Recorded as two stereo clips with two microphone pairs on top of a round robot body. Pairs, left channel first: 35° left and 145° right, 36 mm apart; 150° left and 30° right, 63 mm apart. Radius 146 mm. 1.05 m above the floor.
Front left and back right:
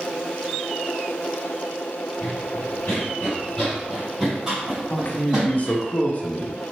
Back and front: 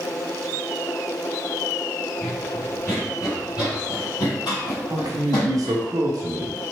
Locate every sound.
2.2 s running footsteps: 35° left, 1.3 m; by 5.8 s 155° left, 2.5 m
4.9 s a man speaking: straight ahead, 0.9 m